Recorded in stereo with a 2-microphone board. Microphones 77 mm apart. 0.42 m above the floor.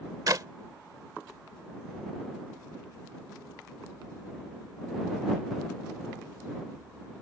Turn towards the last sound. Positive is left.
turn(degrees=-50)  # may be behind; listen again after turning